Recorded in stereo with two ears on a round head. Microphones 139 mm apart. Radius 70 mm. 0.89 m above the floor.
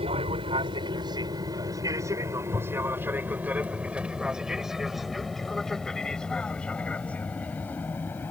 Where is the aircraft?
35° right (ahead or behind); by 8.3 s 15° left (ahead or behind).